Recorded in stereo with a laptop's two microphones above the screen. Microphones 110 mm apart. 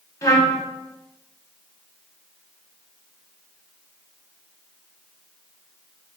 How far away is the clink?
No clink in this recording.